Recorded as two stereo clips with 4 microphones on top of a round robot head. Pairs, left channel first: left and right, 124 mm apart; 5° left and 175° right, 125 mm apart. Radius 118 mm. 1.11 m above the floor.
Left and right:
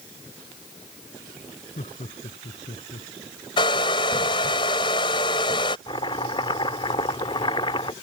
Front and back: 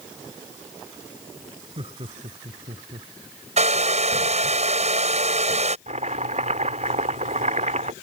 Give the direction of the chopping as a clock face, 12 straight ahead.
7 o'clock.